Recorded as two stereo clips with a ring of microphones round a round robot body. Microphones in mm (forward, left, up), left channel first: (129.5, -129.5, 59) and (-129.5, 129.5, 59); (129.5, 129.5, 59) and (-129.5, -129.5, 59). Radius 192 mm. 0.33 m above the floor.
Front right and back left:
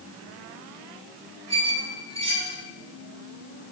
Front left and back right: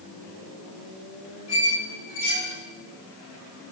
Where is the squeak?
60° left, 3.5 m.